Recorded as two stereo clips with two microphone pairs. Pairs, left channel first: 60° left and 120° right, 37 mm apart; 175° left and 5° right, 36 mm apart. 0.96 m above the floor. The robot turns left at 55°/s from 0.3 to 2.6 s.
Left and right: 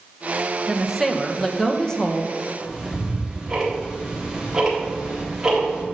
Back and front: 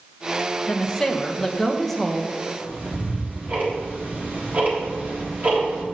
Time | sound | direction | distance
0.7 | a woman speaking | 170° left | 0.7 m
2.6 | ticking | 40° right | 1.6 m